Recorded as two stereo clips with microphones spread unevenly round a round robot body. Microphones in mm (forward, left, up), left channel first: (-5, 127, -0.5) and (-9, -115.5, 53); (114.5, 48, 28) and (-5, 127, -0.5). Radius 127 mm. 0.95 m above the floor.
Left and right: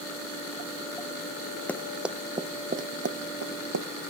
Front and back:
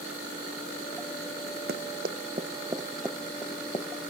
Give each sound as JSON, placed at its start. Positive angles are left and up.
{"t": 1.7, "sound": "running footsteps", "azimuth_deg": 180}